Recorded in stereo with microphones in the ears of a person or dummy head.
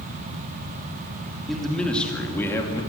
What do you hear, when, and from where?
1.5 s a man speaking: centre (ahead or behind), 3 m; by 2.8 s 15° left (ahead or behind), 3 m